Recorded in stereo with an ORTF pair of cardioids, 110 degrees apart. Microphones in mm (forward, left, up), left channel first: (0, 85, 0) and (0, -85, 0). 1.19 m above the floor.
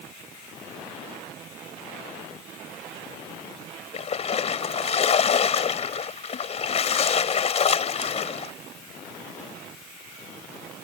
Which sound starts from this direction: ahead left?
A splash, at 3.9 s.